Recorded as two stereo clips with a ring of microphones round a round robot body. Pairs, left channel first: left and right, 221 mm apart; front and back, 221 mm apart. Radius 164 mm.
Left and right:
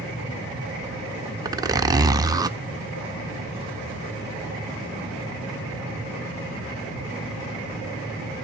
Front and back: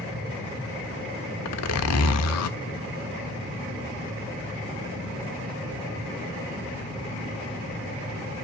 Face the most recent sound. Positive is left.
turn(degrees=-15)